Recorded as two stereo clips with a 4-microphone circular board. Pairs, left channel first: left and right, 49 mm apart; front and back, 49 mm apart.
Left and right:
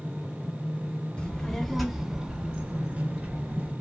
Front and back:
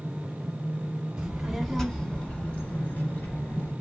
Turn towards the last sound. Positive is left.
turn(degrees=-40)